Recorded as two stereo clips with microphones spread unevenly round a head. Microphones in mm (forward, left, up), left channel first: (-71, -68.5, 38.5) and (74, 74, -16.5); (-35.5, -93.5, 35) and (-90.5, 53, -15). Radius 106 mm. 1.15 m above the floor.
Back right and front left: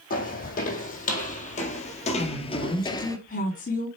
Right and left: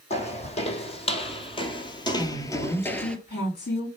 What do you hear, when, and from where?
0.1 s footsteps: 100° right, 3 m; by 3.2 s 115° right, 1.3 m
2.2 s a woman speaking: 85° right, 3.5 m